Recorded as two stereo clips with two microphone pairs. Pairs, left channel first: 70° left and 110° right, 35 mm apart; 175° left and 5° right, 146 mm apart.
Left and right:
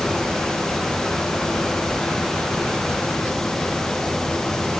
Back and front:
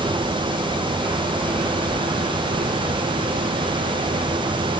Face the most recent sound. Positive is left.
No sound to turn to.